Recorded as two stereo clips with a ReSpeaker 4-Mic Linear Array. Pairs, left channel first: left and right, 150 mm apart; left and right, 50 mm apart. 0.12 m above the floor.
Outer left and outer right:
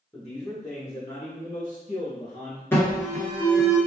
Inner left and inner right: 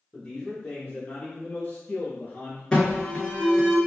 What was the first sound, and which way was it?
A man speaking, 5° left (ahead or behind).